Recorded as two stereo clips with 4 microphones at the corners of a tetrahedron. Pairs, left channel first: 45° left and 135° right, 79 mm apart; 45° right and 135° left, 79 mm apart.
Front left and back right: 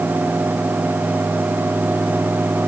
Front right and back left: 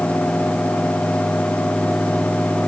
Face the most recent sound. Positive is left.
No sound to turn to.